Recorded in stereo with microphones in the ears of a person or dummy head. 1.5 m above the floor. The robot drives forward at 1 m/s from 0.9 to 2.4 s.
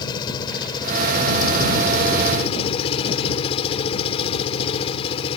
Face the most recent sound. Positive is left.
turn(degrees=35)  # may be behind; listen again after turning